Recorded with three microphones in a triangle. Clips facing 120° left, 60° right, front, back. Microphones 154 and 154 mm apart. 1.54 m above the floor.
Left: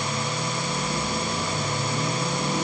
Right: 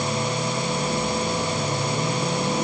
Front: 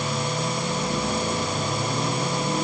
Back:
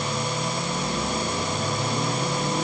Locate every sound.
Only background noise.